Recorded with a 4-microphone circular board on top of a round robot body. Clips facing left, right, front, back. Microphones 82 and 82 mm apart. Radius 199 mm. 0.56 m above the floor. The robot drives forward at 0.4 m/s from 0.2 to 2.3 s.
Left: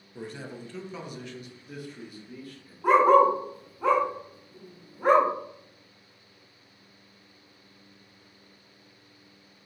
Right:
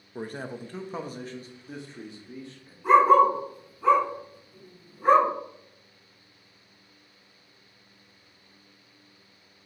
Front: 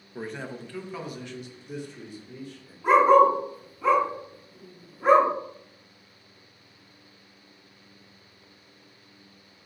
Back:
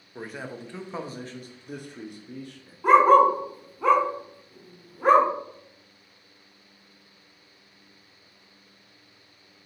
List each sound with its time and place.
0.1 s a man speaking: 90° right, 0.8 m; by 2.7 s 155° right, 1.1 m
2.8 s a dog barking: 135° left, 1.3 m